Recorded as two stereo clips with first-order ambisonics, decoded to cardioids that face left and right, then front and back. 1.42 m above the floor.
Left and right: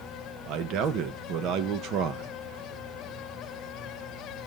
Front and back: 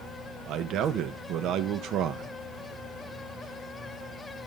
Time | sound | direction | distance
0.5 | a man speaking | 130° right | 1.2 m